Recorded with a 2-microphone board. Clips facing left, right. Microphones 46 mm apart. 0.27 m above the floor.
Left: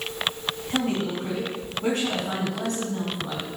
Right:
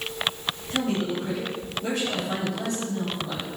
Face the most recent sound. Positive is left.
turn(degrees=55)  # may be behind; listen again after turning